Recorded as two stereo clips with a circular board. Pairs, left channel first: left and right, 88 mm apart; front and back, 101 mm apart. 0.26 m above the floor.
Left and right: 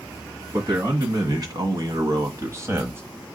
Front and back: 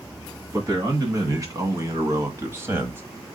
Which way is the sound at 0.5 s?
125° right.